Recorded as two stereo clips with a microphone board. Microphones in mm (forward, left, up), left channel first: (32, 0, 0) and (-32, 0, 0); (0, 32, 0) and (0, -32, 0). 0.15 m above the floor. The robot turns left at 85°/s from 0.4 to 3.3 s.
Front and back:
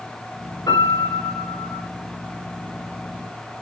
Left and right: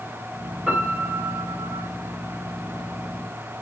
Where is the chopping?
No chopping in this recording.